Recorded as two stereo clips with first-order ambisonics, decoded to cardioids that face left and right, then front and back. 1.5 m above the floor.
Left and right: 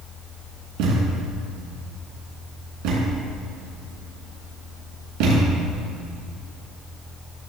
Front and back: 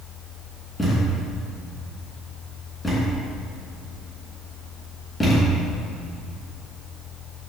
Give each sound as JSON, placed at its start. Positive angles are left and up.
{"t": 0.8, "sound": "a thud", "azimuth_deg": -80, "distance_m": 3.5}